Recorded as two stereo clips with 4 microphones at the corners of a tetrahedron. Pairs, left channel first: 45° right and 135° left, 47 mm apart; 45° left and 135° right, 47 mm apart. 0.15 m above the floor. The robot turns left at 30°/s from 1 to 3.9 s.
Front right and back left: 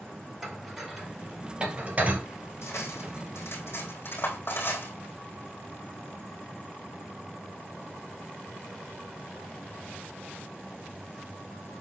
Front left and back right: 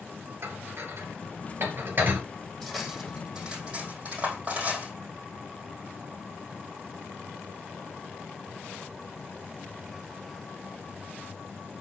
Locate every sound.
0.4 s dishes clattering: 140° right, 2.5 m; by 2.2 s 175° right, 2.5 m
2.6 s cutlery clinking: 35° right, 3.5 m; by 4.9 s 75° right, 3.5 m